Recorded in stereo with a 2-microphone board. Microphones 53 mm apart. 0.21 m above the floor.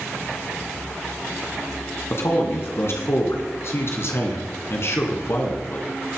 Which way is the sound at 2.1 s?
55° left (ahead or behind).